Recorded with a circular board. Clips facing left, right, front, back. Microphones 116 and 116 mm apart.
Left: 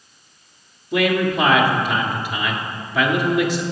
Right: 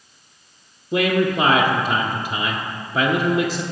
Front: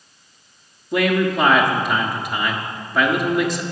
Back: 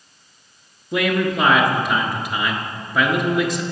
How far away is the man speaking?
About 1.3 m.